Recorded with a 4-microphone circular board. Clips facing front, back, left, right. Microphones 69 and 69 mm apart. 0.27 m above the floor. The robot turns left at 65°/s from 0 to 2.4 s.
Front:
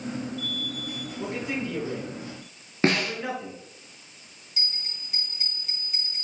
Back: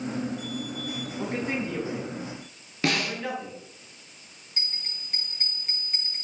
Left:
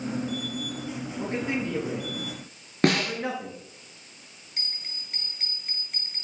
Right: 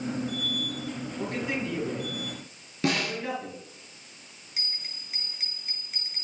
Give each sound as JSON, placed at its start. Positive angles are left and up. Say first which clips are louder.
{"t": 1.2, "sound": "a man speaking", "louder": "back 1 dB, left 2 dB", "azimuth_deg": 160, "distance_m": 4.5}
{"t": 2.8, "sound": "a snare drum", "louder": "front 3 dB, left 4 dB", "azimuth_deg": 60, "distance_m": 1.9}
{"t": 4.6, "sound": "a bell", "louder": "front 1 dB, even", "azimuth_deg": 180, "distance_m": 1.6}